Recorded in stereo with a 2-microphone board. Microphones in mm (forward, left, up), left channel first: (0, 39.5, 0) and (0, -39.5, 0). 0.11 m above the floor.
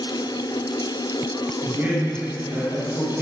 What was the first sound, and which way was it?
A man speaking, 20° right (ahead or behind).